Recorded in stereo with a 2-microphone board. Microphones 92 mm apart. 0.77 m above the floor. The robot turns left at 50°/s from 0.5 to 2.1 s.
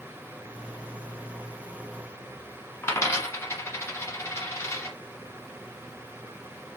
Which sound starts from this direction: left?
A dropped coin, at 2.8 s.